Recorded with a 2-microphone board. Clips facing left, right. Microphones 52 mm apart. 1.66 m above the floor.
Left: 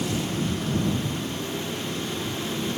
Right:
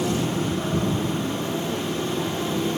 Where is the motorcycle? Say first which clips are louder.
Right 3 dB; 25° right (ahead or behind); by 2.8 s 30° right (ahead or behind).